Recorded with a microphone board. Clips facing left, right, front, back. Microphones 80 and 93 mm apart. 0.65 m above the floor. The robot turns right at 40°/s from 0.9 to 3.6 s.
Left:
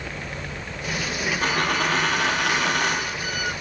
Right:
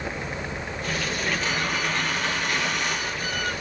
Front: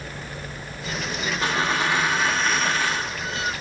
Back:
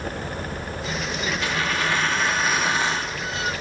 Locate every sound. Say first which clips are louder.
1.4 s a dropped coin: left 4 dB, front 4 dB; 55° left, 8.5 m; by 3.1 s 120° left, 8.5 m